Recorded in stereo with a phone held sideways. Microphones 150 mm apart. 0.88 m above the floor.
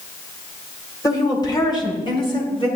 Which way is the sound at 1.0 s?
25° left (ahead or behind).